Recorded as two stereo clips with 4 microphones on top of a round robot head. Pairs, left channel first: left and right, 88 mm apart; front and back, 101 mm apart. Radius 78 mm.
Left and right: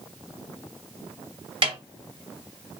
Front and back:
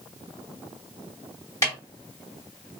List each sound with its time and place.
1.6 s a snare drum: 65° right, 2 m